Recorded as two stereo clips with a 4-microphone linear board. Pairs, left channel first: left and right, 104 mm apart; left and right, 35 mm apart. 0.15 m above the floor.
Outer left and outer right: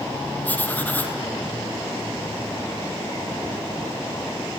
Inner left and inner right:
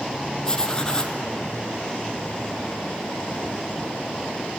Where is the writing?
15° left (ahead or behind), 1.3 m.